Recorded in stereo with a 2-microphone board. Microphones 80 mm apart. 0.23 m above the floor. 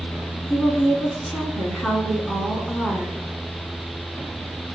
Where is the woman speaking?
10° left (ahead or behind), 2 m.